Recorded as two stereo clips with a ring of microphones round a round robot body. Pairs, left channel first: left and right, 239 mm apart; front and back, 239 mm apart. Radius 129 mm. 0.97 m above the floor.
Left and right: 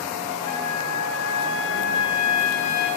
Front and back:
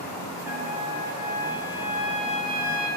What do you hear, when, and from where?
0.5 s a trumpet: 95° left, 4.5 m